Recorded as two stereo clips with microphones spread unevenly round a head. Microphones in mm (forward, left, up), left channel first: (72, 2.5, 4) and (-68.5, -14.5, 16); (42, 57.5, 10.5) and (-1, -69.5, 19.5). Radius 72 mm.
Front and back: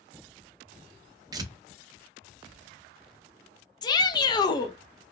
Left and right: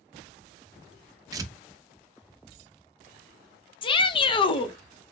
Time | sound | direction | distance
1.3 | tearing paper | 140° right | 0.5 m
3.8 | a shout | 45° left | 0.6 m